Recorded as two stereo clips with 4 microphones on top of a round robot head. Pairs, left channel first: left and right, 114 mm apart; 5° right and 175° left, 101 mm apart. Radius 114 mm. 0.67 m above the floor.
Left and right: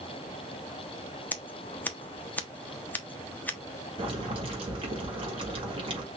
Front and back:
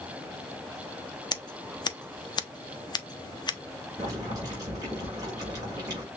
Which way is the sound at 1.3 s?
20° left.